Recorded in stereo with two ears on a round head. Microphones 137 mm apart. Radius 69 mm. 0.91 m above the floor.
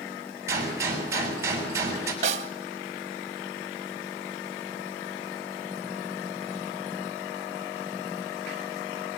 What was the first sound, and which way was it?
A gunshot, 20° right (ahead or behind).